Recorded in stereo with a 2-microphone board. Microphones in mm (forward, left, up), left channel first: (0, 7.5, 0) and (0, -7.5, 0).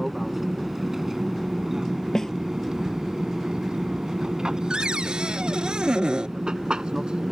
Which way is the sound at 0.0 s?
20° right (ahead or behind).